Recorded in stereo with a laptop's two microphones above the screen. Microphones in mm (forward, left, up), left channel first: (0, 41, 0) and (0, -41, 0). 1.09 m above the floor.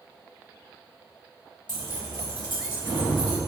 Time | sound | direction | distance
1.7 | keys jangling | 60° left (ahead or behind) | 1.2 m